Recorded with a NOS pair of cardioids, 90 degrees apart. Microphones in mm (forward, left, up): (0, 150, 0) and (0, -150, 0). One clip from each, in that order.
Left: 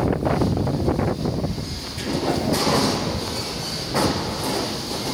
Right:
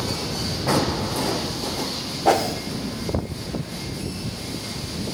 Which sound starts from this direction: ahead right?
A whoosh, at 2.2 s.